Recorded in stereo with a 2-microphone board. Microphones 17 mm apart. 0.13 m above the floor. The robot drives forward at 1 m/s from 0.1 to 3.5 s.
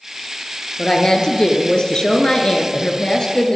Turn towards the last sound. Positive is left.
turn(degrees=35)  # may be behind; listen again after turning